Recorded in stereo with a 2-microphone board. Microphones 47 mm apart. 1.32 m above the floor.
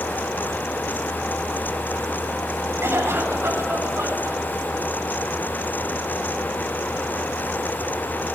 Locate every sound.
2.8 s a cough: 65° right (ahead or behind), 8.5 m